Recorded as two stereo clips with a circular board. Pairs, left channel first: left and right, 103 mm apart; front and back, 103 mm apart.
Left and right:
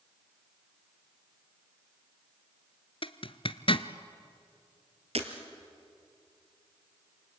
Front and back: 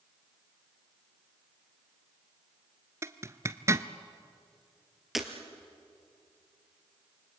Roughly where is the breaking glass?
Right.